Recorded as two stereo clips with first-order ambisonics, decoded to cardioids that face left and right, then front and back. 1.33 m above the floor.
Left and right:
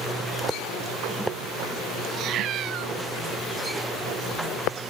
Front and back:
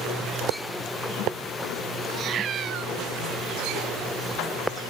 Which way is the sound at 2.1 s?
130° right.